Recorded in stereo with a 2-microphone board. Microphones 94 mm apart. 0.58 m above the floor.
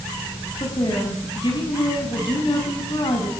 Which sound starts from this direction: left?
A woman speaking, at 0.6 s.